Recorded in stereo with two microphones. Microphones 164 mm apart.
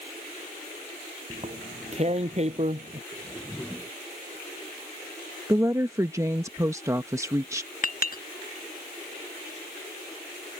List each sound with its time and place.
1.3 s tearing paper: 40° right (ahead or behind)
3.1 s a whoosh: 10° left (ahead or behind)
5.5 s a woman speaking: 20° right (ahead or behind)
7.8 s a clink: 60° left (ahead or behind)